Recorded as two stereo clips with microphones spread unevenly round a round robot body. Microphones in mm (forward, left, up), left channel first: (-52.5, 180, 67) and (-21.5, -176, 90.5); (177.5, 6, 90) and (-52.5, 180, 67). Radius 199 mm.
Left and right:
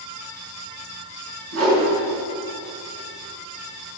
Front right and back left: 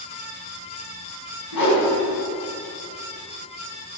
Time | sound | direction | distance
1.5 | a whoosh | 35° right | 5 m